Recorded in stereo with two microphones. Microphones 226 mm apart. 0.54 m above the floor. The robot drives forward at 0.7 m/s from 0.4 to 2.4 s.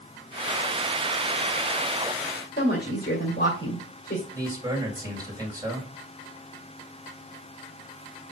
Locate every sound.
2.6 s a woman speaking: 50° left (ahead or behind), 2 m
4.3 s a man speaking: 15° right (ahead or behind), 3.5 m